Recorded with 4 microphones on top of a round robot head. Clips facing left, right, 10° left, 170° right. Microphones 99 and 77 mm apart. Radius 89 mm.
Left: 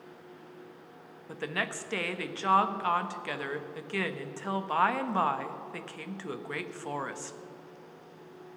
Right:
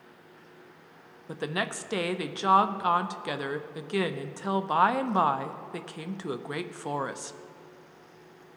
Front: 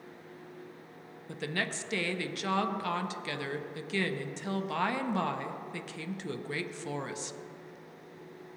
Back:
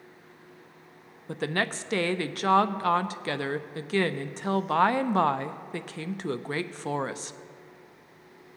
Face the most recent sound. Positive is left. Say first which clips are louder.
# right 3 dB, back 6 dB
turn(degrees=-155)